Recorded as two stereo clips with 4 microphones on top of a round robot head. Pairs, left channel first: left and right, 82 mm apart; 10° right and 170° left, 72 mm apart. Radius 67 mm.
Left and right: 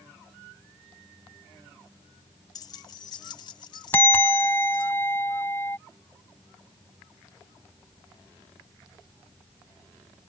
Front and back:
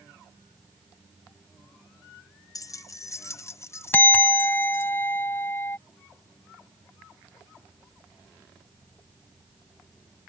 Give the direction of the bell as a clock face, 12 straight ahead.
11 o'clock.